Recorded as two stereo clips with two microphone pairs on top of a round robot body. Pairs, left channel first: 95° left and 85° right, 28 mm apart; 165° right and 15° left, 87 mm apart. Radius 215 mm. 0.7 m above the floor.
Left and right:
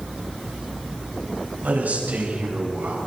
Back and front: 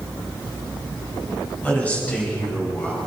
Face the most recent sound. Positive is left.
turn(degrees=-95)